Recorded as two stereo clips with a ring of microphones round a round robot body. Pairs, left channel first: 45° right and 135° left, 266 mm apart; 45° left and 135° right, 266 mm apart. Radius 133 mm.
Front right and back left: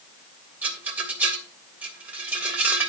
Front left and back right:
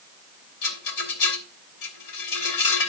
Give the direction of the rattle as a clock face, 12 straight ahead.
10 o'clock.